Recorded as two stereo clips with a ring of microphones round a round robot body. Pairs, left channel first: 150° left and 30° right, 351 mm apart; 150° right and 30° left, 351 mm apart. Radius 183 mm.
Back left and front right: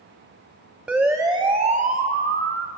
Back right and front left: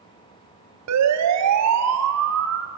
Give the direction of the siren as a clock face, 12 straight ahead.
10 o'clock.